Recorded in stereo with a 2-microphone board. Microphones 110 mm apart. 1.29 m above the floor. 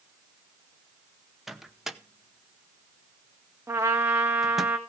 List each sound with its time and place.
1.5 s a microwave: centre (ahead or behind), 0.7 m
3.7 s a trumpet: 20° right (ahead or behind), 1.7 m